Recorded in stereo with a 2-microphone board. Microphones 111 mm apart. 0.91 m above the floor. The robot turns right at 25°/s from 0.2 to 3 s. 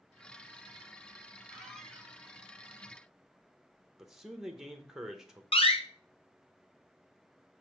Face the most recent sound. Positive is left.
turn(degrees=60)  # may be behind; listen again after turning